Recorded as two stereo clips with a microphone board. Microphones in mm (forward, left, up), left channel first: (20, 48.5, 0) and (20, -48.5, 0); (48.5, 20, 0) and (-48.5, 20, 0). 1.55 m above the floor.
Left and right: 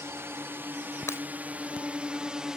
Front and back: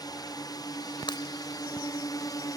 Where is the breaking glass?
30° left.